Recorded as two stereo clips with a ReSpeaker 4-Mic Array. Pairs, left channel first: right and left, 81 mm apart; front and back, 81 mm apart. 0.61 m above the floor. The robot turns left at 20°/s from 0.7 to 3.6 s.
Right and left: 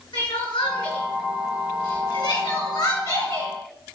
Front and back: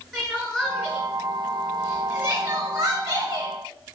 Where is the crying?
85° right, 2 m; by 3.5 s 140° right, 2 m.